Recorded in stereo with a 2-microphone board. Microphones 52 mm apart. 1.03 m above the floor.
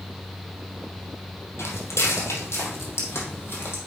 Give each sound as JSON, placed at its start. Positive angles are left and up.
{"t": 1.6, "sound": "footsteps", "side_deg": 65, "distance_m": 2.0}